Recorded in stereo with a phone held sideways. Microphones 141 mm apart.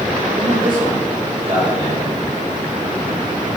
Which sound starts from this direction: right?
A man speaking, at 0.3 s.